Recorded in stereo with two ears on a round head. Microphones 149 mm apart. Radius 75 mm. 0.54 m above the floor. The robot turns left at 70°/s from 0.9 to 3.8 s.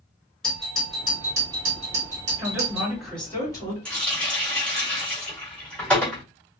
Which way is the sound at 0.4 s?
5° left.